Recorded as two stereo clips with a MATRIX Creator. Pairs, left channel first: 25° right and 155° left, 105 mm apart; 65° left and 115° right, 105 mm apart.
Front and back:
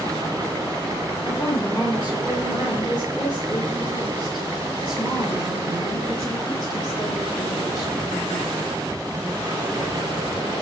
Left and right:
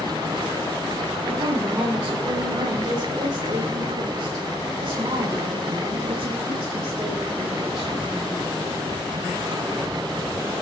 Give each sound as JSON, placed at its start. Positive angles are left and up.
{"t": 1.2, "sound": "a woman speaking", "azimuth_deg": -65, "distance_m": 8.0}